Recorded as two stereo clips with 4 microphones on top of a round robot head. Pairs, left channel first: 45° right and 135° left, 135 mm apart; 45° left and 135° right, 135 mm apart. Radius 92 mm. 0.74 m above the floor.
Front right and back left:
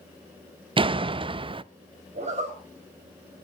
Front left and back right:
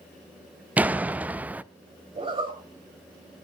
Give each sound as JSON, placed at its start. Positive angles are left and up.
{"t": 0.8, "sound": "a door slam", "azimuth_deg": 150, "distance_m": 0.5}
{"t": 2.1, "sound": "a zipper", "azimuth_deg": 175, "distance_m": 5.0}